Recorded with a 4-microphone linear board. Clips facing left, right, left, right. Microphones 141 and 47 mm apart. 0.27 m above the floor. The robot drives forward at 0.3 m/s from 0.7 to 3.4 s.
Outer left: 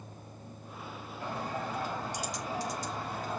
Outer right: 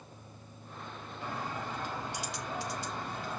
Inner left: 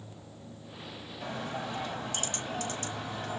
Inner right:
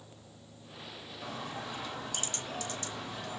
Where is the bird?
40° left (ahead or behind), 1.5 m.